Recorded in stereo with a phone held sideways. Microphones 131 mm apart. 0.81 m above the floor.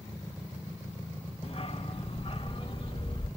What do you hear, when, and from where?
1.4 s a dog barking: 50° left (ahead or behind), 2.5 m; by 3.3 s 45° left (ahead or behind), 3.5 m